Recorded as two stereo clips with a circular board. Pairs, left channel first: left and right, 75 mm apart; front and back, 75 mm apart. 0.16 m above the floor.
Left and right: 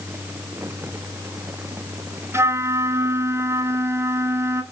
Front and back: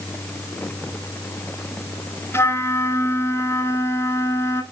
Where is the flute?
45° right, 1.3 m.